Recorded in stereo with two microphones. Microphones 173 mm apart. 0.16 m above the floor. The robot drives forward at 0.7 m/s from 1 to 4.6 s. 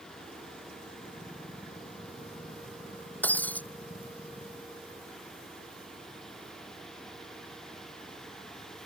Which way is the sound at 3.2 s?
10° left (ahead or behind).